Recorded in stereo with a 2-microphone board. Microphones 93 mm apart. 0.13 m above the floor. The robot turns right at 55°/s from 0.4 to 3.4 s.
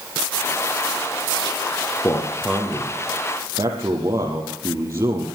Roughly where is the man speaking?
Behind left.